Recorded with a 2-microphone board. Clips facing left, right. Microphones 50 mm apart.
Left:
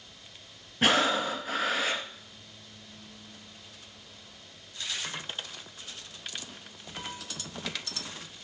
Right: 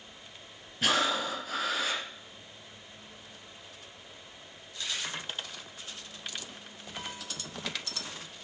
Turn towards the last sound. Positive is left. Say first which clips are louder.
# left 3 dB
turn(degrees=35)  # may be behind; listen again after turning